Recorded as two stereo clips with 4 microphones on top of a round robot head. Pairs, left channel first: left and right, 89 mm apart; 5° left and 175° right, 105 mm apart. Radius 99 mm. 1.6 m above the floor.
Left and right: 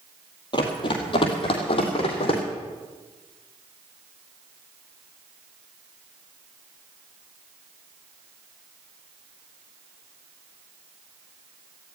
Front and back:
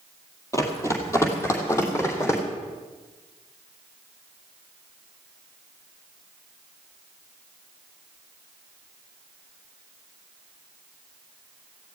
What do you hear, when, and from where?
0.5 s running footsteps: 60° left, 2.5 m; by 2.4 s 70° left, 4 m